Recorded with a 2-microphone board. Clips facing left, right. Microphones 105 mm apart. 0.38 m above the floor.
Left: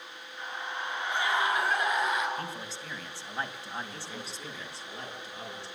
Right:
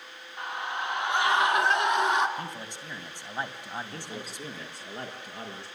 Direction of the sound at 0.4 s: 60° right (ahead or behind).